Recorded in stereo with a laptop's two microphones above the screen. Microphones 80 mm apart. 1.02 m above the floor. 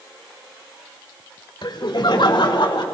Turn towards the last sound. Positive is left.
turn(degrees=85)